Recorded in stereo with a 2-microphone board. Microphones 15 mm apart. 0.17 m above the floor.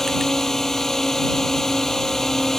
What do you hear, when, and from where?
0.0 s a drone: 40° left (ahead or behind)